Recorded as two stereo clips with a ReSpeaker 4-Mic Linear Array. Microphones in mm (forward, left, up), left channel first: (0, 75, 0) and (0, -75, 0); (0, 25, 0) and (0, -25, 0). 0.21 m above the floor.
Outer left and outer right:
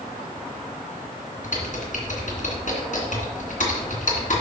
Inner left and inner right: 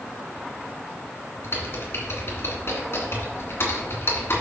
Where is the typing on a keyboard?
55° left (ahead or behind), 2.5 m.